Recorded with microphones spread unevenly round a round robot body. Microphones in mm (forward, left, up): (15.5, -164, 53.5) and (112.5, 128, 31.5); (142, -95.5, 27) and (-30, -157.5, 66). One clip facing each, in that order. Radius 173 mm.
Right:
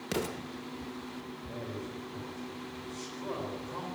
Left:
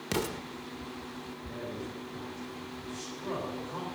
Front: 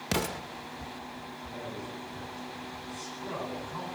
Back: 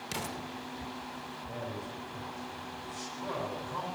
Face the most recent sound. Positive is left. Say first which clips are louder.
# left 1 dB, even
turn(degrees=155)